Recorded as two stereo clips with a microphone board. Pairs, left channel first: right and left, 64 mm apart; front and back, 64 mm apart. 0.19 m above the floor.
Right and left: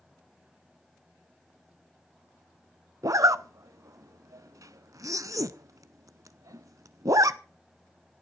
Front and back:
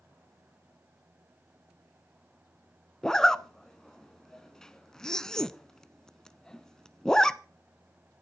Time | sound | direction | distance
3.0 | a zipper | 80° left | 0.7 m